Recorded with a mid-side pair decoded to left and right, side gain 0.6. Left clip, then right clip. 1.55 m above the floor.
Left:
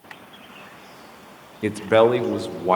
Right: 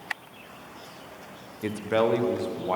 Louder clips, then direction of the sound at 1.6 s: Left 8 dB; 35° left.